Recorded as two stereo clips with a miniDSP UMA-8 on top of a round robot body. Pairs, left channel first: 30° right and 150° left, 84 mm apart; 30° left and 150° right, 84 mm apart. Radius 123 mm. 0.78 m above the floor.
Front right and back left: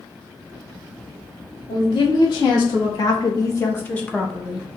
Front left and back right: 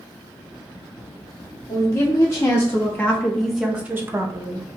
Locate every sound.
1.7 s a woman speaking: 15° right, 2 m; by 4.7 s 130° right, 1.2 m